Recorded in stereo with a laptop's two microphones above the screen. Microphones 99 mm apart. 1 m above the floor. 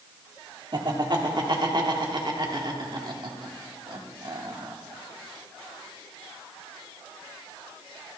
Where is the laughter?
50° right (ahead or behind), 2 m.